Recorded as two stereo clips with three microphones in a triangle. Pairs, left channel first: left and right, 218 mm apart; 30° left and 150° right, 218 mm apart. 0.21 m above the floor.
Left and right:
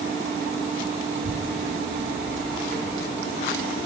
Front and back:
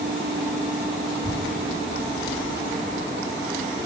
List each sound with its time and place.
1.1 s a child speaking: 65° right, 6 m